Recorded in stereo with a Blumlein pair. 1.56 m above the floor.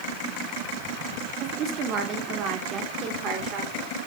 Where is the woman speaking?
35° right, 4.5 m.